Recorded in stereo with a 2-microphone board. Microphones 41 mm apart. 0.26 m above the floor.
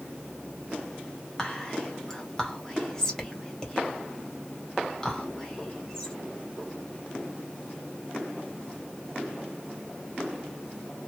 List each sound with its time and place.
1.4 s whispering: 15° left (ahead or behind), 1.5 m